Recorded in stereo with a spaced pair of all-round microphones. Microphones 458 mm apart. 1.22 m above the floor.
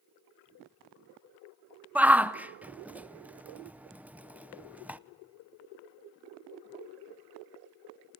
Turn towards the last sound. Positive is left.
turn(degrees=-5)  # may be behind; listen again after turning